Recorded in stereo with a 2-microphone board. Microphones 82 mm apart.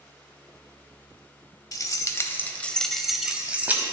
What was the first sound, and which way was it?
Keys jangling, 45° left (ahead or behind).